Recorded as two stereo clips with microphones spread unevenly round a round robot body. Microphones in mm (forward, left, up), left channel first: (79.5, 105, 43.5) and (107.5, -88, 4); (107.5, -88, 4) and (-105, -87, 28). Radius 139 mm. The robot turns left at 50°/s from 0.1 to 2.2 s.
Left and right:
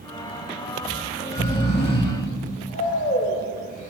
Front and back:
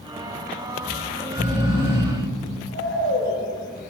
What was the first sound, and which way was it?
Snoring, 120° left.